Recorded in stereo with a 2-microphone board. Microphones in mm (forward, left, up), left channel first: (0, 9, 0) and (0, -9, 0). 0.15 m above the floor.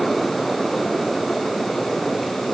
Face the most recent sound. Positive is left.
No sound to turn to.